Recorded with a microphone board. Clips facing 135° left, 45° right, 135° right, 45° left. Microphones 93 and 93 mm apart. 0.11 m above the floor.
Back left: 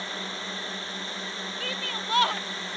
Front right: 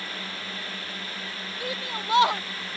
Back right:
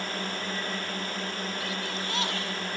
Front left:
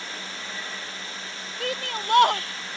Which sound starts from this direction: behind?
A drone, at 0.0 s.